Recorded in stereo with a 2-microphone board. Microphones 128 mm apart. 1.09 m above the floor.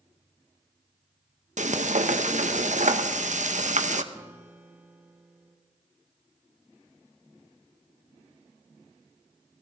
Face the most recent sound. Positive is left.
turn(degrees=-15)  # may be behind; listen again after turning